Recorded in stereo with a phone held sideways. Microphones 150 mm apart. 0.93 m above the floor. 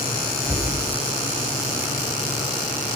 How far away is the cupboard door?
About 5 m.